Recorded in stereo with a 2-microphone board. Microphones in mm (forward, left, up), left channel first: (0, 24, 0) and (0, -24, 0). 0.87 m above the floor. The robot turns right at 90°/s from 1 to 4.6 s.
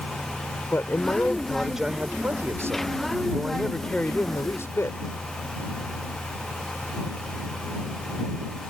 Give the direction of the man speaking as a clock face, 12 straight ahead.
8 o'clock.